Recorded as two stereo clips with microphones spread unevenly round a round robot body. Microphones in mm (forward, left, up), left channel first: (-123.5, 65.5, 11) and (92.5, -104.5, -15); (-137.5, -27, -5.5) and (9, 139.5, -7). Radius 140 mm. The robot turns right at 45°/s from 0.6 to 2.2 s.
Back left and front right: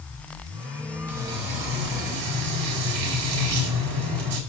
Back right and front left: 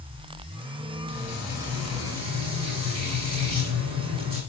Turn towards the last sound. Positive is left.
turn(degrees=-25)